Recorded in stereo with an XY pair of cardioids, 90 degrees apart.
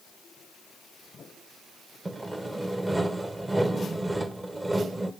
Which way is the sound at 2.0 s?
15° right.